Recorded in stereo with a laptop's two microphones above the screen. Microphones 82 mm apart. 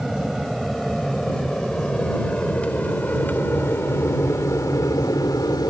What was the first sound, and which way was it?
An aircraft, 5° right (ahead or behind).